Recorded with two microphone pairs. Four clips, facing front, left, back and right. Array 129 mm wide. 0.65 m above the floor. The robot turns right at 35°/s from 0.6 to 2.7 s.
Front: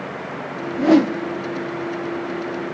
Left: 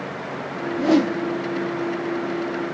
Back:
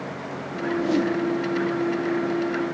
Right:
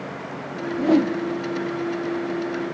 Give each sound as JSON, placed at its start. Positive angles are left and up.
{"t": 0.7, "sound": "a whoosh", "azimuth_deg": 15, "distance_m": 0.7}